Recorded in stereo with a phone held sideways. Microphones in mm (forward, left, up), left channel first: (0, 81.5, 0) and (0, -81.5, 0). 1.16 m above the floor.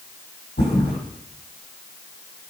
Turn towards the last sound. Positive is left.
turn(degrees=85)